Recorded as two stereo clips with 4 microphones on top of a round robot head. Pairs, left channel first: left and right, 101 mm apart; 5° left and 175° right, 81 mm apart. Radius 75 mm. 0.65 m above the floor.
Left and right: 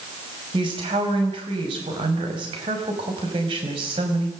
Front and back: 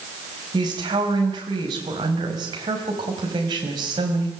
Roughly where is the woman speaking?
Behind right.